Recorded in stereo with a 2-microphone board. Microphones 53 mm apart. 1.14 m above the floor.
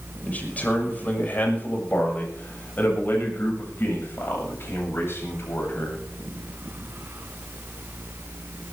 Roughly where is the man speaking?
Left.